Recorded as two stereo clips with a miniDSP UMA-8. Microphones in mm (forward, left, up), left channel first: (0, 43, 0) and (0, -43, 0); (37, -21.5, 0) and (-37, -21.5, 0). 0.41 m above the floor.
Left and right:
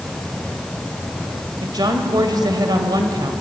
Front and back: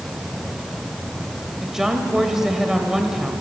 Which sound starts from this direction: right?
A woman speaking, at 1.6 s.